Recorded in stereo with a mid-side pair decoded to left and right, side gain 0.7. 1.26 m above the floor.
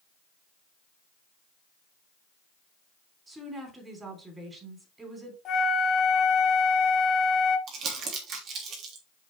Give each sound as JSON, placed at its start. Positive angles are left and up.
{"t": 3.3, "sound": "a woman speaking", "azimuth_deg": -20, "distance_m": 3.5}
{"t": 5.5, "sound": "a flute", "azimuth_deg": 40, "distance_m": 1.5}
{"t": 7.7, "sound": "crumpling", "azimuth_deg": -50, "distance_m": 3.0}